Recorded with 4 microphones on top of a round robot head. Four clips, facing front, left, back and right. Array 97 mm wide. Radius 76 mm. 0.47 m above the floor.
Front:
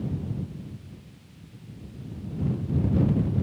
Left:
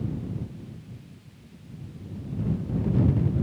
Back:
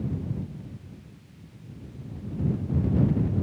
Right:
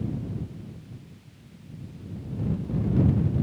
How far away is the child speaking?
No child speaking in this recording.